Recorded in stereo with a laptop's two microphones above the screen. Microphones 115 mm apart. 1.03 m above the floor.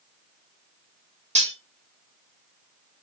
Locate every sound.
1.4 s cutlery clinking: 80° right, 1.4 m